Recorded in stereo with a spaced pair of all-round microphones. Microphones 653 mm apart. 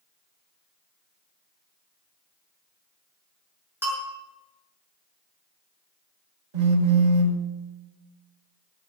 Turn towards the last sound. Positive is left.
turn(degrees=-75)  # may be behind; listen again after turning